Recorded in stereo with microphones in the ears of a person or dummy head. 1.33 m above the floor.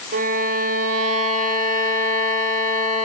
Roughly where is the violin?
Right.